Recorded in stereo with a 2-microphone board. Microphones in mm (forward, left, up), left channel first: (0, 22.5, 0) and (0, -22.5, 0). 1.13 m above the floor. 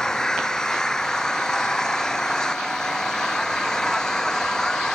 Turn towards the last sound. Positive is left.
turn(degrees=10)  # may be behind; listen again after turning